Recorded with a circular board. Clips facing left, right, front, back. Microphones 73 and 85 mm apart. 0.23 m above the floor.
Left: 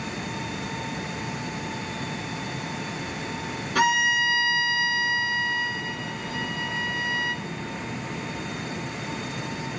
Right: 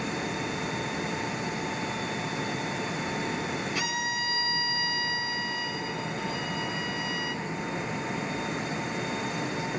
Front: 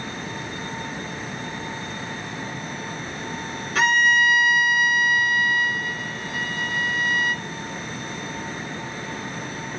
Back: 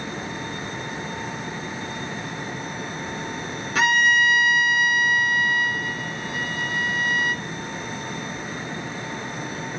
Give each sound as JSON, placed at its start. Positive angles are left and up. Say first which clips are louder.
{"t": 3.8, "sound": "a violin", "louder": "left 9 dB, even", "azimuth_deg": 90, "distance_m": 1.8}